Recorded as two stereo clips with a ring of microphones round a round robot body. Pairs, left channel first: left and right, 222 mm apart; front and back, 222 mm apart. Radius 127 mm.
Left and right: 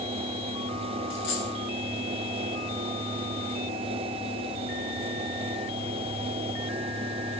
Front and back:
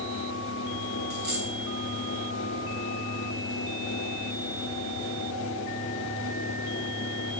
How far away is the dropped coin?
About 3 m.